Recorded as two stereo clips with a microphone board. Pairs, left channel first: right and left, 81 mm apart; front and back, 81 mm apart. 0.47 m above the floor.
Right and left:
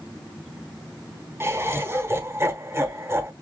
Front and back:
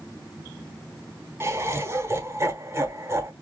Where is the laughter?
135° left, 1.0 m.